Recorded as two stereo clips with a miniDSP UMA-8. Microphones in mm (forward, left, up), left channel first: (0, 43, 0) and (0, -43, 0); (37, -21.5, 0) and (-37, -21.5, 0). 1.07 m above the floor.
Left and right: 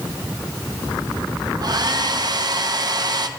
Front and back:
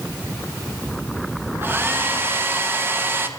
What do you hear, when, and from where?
1.6 s a hair dryer: 120° right, 0.6 m